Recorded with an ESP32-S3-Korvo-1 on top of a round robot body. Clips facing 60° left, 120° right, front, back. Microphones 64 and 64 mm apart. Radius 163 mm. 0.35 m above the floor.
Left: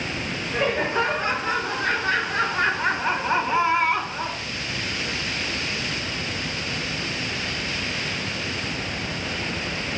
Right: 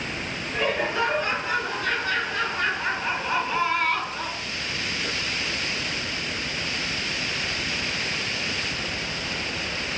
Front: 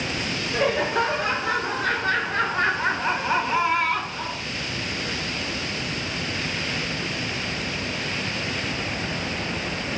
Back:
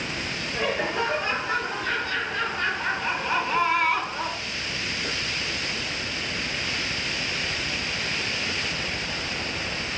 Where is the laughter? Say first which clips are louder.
Left 2 dB, front 4 dB; 5° left, 1.9 m; by 4.4 s 135° left, 1.0 m.